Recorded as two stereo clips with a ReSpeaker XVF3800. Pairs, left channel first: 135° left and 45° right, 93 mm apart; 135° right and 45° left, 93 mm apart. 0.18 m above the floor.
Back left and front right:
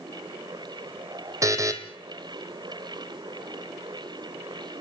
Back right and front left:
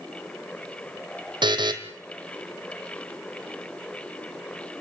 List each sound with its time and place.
1.4 s a buzzer: 10° left, 2 m